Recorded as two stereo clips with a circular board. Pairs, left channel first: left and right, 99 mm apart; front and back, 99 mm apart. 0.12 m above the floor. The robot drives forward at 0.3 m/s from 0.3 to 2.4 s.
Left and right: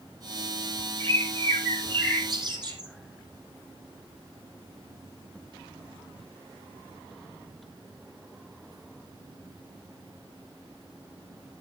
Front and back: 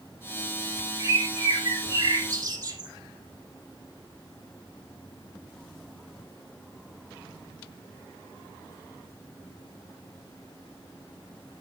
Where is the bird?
120° right, 3 m; by 2.9 s 130° right, 3 m.